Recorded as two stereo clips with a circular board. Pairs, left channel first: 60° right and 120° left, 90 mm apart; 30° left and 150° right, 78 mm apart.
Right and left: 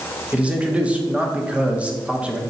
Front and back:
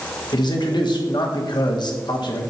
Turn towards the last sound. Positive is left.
turn(degrees=45)